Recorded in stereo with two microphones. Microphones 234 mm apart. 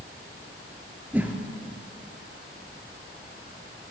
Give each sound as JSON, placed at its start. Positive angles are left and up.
{"t": 1.1, "sound": "a whoosh", "side_deg": -5, "distance_m": 3.0}